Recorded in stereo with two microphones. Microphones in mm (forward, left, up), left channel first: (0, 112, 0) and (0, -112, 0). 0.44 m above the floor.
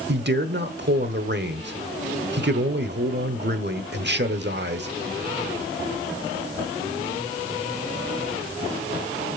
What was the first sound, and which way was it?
A man speaking, 50° right (ahead or behind).